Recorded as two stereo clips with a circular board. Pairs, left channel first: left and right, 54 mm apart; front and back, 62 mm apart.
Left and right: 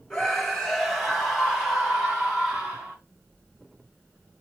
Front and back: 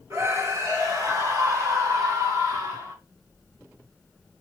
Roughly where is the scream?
Behind.